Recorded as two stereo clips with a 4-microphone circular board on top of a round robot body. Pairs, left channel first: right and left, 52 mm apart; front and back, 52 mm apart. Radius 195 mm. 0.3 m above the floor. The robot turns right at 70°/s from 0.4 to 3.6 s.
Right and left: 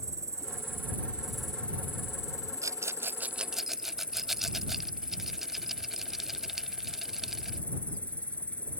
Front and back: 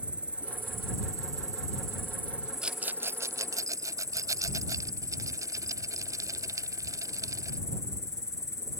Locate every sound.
0.0 s an insect: 110° left; by 8.8 s 25° right
2.6 s a rattle: 105° left; by 7.6 s 175° left